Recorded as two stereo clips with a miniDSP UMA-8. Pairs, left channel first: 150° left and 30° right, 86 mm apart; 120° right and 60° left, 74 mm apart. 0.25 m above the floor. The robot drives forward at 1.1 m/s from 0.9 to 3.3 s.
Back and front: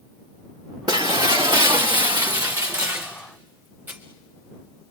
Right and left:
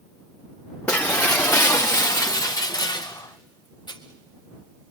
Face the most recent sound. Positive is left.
turn(degrees=-100)